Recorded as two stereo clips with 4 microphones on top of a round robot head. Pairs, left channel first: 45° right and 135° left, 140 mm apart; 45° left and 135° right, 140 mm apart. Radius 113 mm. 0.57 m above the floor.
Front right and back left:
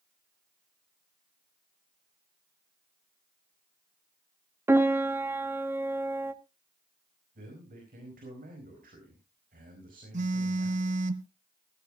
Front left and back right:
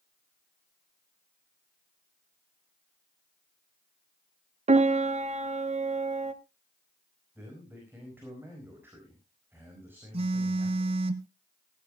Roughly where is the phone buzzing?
Behind.